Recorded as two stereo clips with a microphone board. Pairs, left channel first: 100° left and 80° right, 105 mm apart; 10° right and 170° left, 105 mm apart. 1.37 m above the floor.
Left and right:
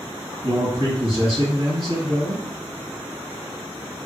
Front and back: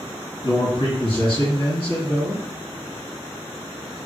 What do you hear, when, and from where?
0.4 s a man speaking: 40° right, 1.7 m